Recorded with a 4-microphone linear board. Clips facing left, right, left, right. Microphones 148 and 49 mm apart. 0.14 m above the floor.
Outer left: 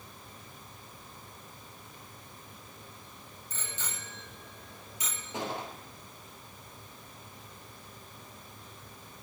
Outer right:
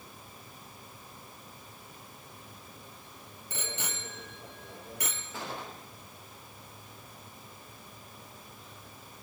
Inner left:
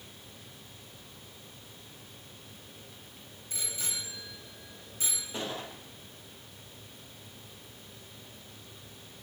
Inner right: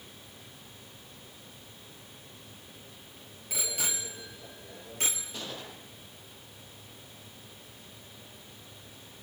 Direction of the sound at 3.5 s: 75° right (ahead or behind).